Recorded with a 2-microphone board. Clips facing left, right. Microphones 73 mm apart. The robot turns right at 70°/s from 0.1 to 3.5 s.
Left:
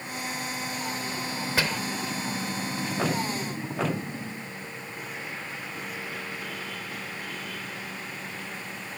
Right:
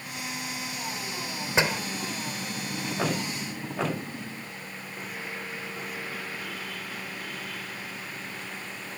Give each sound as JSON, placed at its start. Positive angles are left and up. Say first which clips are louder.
{"t": 1.6, "sound": "a door slam", "louder": "right 4 dB", "side_deg": -25}